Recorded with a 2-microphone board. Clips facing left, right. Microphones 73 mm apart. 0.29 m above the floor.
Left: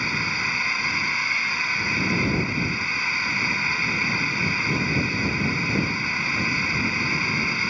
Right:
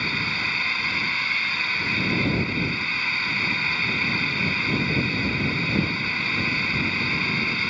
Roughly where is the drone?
Centre.